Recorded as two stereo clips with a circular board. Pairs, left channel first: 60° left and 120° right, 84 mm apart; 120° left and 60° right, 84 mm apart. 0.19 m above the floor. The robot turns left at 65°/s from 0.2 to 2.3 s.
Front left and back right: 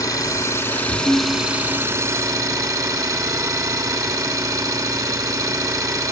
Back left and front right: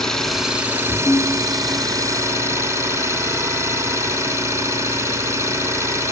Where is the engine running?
35° left, 1.6 m; by 6.1 s 100° right, 1.6 m.